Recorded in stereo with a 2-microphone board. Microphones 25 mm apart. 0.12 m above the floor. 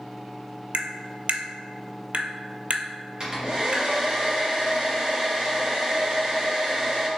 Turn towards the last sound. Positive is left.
turn(degrees=-35)  # may be behind; listen again after turning